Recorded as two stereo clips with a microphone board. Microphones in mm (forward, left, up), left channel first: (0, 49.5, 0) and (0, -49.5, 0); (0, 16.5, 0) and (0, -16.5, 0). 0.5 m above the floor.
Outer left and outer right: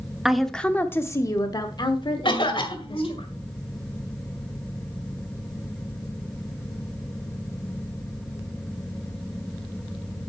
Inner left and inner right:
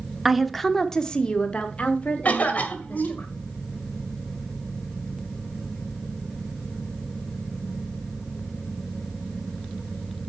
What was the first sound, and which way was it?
A woman speaking, 5° right (ahead or behind).